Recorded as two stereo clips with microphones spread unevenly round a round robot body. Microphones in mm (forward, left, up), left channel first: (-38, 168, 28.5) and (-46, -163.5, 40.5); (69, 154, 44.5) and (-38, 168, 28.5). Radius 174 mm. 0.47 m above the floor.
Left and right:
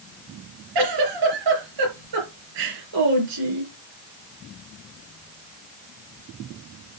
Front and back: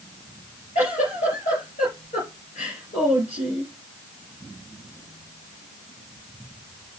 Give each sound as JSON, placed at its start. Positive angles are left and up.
{"t": 0.8, "sound": "a giggle", "azimuth_deg": -60, "distance_m": 4.5}